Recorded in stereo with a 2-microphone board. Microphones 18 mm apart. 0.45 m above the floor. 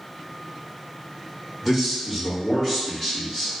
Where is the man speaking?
10° left (ahead or behind), 1.7 m; by 3.6 s 25° left (ahead or behind), 1.3 m.